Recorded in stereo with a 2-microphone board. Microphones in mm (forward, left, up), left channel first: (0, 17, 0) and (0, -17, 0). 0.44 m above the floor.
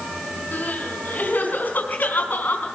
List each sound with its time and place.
0.5 s crying: 60° left (ahead or behind), 4.5 m